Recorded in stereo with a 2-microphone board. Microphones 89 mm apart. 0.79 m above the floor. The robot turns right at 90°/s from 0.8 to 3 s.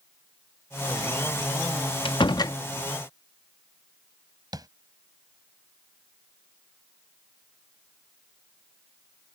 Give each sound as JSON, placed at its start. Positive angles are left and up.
{"t": 2.0, "sound": "a door slam", "azimuth_deg": 95}
{"t": 4.5, "sound": "tapping", "side_deg": -50}